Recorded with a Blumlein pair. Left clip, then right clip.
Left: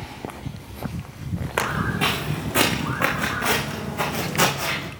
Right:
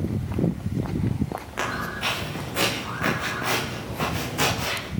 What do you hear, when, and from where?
1.6 s footsteps: 60° left, 5 m; by 4.9 s 75° left, 3.5 m